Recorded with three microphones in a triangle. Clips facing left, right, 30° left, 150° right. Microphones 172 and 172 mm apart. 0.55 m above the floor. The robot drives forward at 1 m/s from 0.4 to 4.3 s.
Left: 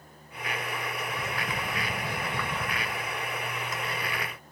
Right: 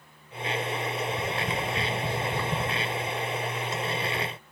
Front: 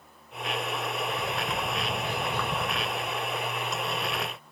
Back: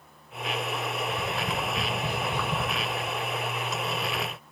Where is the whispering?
No whispering in this recording.